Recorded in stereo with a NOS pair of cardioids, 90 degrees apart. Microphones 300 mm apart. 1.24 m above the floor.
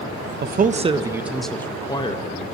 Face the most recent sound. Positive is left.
turn(degrees=25)